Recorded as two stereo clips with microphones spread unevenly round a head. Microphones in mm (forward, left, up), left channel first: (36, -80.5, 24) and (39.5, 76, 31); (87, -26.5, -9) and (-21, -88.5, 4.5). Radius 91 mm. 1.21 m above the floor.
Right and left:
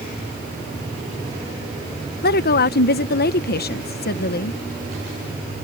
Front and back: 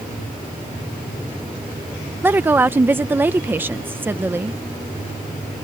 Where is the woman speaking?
75° right.